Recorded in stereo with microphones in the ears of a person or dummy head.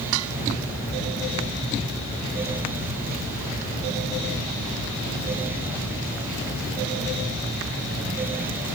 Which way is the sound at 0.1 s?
80° right.